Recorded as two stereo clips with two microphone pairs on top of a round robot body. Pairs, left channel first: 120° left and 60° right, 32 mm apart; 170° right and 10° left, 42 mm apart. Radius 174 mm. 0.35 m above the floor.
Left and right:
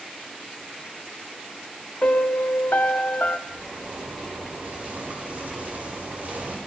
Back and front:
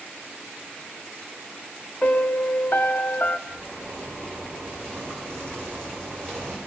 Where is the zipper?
25° right, 5 m.